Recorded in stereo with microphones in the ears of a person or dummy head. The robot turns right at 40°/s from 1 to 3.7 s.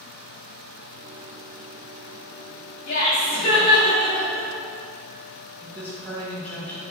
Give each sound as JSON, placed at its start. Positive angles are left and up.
{"t": 2.9, "sound": "laughter", "azimuth_deg": 125, "distance_m": 1.2}
{"t": 5.6, "sound": "a woman speaking", "side_deg": 15, "distance_m": 0.7}